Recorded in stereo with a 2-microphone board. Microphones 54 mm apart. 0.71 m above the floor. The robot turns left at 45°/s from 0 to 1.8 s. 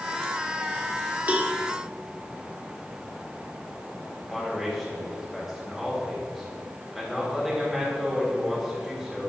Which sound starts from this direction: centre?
A man speaking, at 4.2 s.